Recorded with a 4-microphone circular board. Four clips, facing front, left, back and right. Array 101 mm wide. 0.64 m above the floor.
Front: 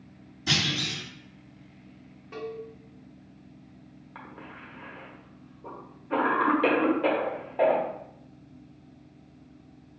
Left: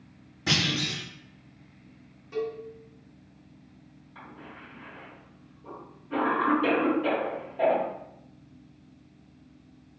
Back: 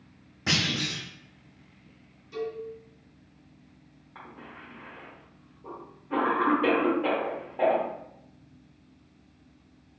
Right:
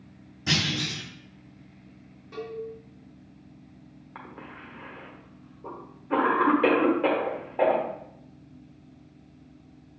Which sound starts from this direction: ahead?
A cowbell, at 2.3 s.